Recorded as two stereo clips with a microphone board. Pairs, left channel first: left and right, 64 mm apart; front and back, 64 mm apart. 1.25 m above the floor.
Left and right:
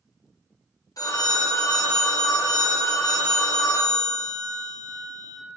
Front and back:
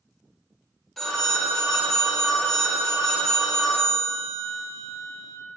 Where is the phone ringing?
85° left, 0.5 m.